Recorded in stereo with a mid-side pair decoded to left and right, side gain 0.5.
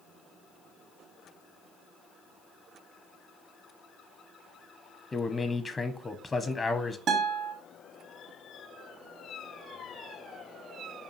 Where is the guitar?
65° right, 1.4 m.